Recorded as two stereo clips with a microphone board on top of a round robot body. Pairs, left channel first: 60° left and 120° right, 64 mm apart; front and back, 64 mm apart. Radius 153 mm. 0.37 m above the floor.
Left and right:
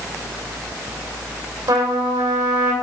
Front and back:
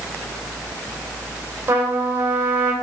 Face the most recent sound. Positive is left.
turn(degrees=-125)